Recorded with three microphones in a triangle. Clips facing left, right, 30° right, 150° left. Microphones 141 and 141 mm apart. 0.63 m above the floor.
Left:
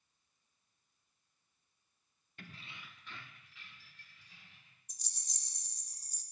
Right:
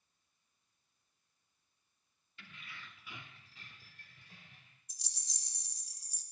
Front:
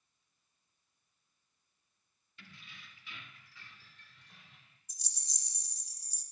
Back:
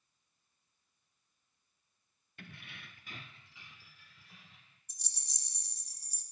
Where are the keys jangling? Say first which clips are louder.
Left 2 dB, back 5 dB; 120° left, 0.6 m; by 4.8 s 120° right, 1.7 m.